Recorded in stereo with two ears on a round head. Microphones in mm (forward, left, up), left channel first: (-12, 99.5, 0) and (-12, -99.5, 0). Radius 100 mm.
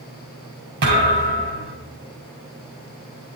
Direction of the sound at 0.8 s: 50° right (ahead or behind).